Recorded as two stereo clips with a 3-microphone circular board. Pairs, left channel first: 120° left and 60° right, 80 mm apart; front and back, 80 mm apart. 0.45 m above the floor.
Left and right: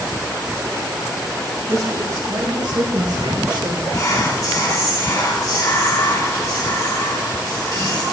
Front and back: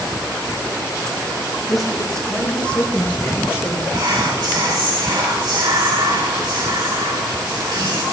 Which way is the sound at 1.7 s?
95° right.